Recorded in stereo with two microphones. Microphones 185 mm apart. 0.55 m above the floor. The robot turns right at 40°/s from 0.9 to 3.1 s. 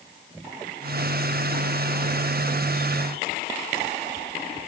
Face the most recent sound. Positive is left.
No sound to turn to.